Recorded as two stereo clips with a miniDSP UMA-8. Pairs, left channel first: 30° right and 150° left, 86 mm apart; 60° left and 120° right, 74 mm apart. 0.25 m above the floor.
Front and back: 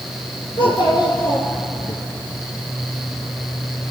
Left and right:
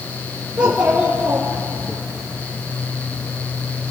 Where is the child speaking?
45° right, 3 m.